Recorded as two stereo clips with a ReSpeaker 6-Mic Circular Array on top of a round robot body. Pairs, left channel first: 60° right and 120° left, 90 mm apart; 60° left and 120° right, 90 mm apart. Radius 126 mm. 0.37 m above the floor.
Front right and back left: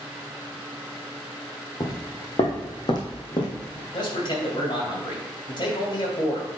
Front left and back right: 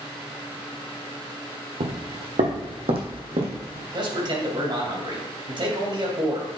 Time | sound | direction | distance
1.8 | footsteps | 110° right | 0.9 m
3.9 | a man speaking | 90° right | 2.5 m